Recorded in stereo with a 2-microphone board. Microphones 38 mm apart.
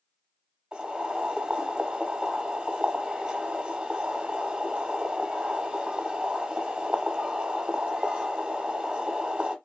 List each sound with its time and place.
0.7 s boiling: 25° right (ahead or behind), 1.0 m